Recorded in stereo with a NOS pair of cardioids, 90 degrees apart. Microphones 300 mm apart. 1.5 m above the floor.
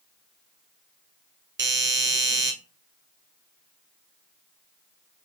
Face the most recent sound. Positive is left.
turn(degrees=-40)